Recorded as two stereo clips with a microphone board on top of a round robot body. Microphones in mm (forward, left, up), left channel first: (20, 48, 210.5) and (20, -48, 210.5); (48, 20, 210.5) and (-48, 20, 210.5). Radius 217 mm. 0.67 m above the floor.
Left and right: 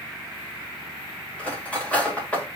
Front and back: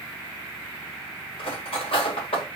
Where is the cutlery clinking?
15° left, 2 m.